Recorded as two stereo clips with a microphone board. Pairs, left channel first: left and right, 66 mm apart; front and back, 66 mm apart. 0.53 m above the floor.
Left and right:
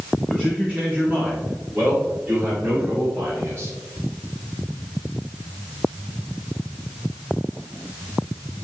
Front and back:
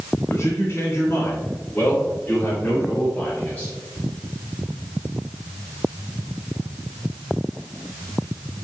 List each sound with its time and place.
0.3 s a man speaking: 20° right, 1.9 m; by 3.7 s 60° right, 3 m